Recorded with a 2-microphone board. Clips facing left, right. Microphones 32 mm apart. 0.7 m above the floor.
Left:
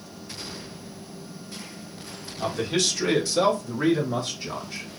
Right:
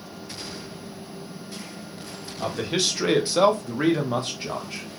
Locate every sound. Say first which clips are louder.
2.4 s a man speaking: even; 10° right (ahead or behind), 1.0 m; by 4.8 s 45° right (ahead or behind), 1.3 m